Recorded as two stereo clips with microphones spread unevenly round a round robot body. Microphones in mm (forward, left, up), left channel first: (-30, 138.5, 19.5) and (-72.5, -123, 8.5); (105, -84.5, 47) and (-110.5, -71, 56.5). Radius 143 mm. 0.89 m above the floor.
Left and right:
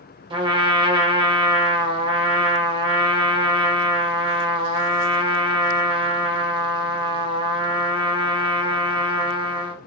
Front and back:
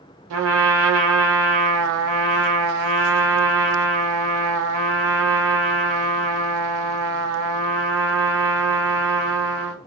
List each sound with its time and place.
0.3 s a trumpet: 170° right, 0.7 m